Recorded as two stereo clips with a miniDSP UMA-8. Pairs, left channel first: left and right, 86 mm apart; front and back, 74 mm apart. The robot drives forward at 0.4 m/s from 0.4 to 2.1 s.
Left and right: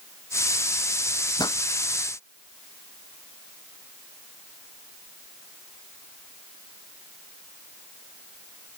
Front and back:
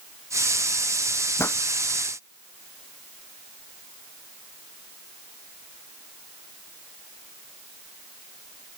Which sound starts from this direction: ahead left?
A pop, at 1.4 s.